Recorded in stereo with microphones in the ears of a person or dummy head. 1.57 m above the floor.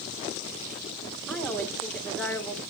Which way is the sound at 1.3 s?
5° left (ahead or behind).